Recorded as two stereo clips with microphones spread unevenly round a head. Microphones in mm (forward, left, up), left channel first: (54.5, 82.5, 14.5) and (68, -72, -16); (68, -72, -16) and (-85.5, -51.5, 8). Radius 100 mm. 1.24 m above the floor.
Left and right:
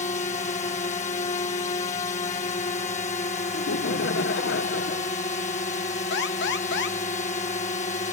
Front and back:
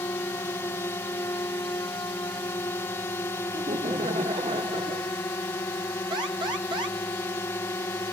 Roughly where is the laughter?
Left.